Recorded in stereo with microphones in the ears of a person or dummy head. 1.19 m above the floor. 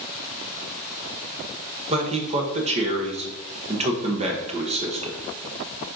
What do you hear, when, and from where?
1.9 s a man speaking: 30° right (ahead or behind), 1.0 m